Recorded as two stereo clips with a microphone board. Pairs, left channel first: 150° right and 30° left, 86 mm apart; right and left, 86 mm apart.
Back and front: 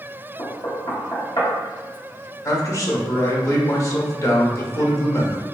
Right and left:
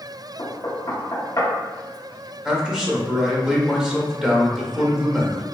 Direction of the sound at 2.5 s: 170° left.